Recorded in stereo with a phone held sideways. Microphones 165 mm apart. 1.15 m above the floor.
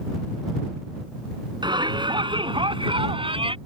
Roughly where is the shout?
Right.